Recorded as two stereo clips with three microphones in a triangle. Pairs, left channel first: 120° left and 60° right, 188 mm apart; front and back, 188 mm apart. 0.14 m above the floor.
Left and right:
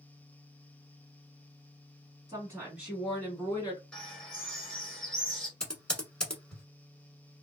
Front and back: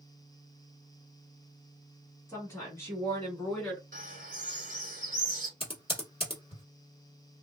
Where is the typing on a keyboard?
35° left, 1.2 m.